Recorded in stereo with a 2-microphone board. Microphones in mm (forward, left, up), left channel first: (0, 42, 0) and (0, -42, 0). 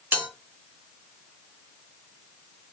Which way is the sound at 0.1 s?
25° right (ahead or behind).